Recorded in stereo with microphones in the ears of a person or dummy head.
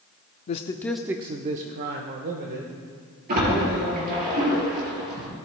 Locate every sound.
0.5 s a man speaking: 35° left (ahead or behind), 0.6 m; by 4.3 s 80° right, 2.5 m
3.3 s a splash: 55° right (ahead or behind), 4 m